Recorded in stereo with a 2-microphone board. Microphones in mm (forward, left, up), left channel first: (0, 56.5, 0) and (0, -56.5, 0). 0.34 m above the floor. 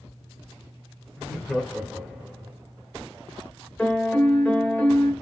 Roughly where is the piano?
Centre.